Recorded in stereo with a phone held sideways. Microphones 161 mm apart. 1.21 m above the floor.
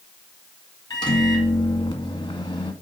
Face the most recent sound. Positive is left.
turn(degrees=30)  # may be behind; listen again after turning